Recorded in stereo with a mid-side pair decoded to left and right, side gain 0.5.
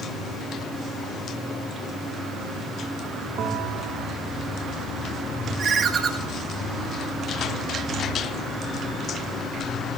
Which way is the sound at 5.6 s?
45° right.